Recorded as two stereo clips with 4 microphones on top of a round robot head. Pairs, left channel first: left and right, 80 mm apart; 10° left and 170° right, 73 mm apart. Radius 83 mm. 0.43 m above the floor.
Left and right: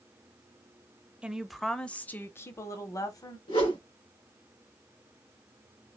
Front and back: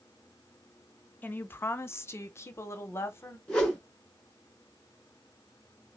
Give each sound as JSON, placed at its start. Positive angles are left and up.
{"t": 1.2, "sound": "a woman speaking", "azimuth_deg": -25, "distance_m": 0.8}
{"t": 3.5, "sound": "a whoosh", "azimuth_deg": 85, "distance_m": 3.0}